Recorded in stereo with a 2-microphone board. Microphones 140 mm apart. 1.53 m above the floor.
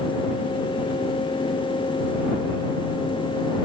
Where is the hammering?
I don't hear hammering.